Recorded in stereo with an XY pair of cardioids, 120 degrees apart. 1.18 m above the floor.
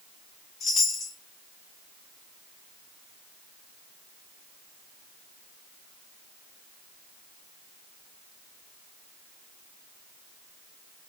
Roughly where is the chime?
Ahead left.